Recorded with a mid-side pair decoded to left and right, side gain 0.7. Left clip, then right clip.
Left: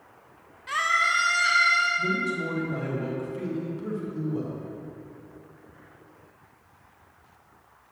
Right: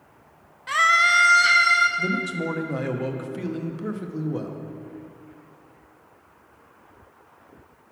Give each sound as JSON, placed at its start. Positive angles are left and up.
{"t": 0.7, "sound": "a scream", "azimuth_deg": -20, "distance_m": 0.7}
{"t": 2.0, "sound": "a man speaking", "azimuth_deg": -35, "distance_m": 0.9}